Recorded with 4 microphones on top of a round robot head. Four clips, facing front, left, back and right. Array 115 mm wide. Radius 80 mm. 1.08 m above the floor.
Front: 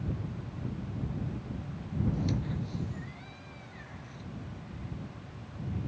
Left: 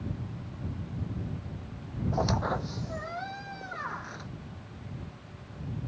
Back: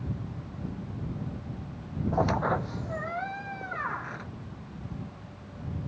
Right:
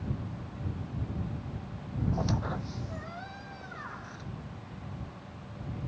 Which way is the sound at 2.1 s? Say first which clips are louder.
Left 6 dB, back 8 dB; 160° left.